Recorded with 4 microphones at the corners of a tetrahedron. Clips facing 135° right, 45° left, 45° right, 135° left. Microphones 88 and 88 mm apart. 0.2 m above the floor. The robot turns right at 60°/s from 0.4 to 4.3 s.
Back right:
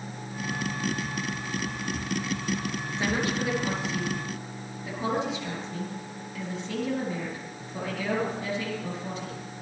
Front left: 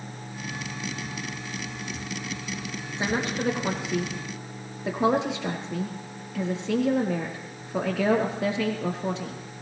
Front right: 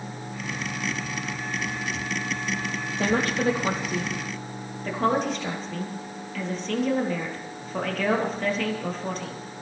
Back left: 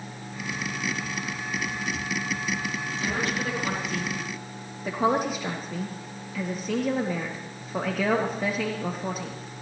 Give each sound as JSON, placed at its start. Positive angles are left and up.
{"t": 3.0, "sound": "a woman speaking", "azimuth_deg": -25, "distance_m": 3.5}